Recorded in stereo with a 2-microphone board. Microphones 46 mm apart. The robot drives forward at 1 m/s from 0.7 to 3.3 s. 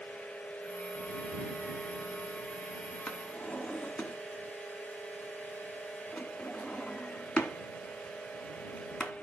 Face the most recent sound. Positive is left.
turn(degrees=20)  # may be behind; listen again after turning